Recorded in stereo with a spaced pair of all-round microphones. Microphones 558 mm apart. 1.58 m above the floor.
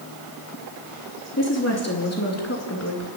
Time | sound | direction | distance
1.4 | a woman speaking | 25° left (ahead or behind) | 3.5 m